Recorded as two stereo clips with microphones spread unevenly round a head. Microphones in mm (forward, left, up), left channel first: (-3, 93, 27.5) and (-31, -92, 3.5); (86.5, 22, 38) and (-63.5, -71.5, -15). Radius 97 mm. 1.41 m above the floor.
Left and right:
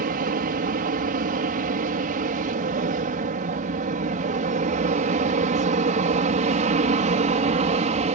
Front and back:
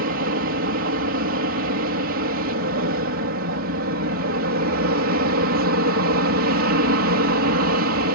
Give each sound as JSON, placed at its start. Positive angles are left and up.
{"t": 0.0, "sound": "an aircraft", "azimuth_deg": -135}